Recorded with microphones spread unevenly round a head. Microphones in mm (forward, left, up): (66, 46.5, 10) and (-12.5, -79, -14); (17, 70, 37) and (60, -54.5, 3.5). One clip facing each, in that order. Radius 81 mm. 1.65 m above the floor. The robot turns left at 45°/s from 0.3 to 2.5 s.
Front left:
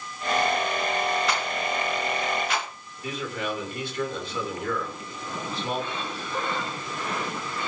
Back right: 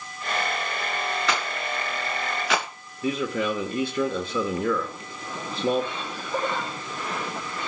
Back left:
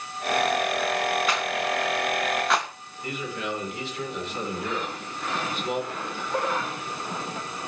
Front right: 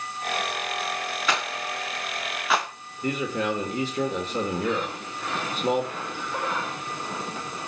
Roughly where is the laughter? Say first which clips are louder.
Back right 3 dB, back left 2 dB; behind.